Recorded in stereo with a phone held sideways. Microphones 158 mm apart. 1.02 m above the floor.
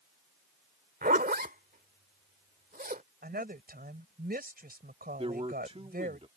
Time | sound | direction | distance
1.0 | a zipper | 80° right | ?
3.2 | a woman speaking | 85° right | ?
5.2 | a man speaking | 40° right (ahead or behind) | ?